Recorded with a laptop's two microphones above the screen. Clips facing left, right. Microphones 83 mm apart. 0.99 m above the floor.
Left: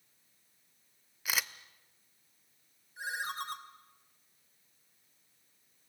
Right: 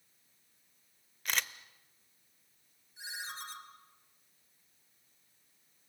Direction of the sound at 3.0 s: 55° left (ahead or behind).